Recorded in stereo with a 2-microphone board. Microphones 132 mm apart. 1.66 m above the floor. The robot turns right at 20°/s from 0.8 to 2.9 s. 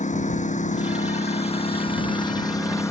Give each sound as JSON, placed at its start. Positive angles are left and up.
{"t": 0.0, "sound": "a lawn mower", "azimuth_deg": 120}